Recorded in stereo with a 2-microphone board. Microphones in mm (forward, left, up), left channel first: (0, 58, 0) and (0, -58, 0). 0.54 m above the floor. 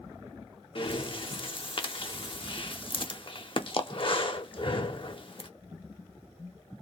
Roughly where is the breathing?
Left.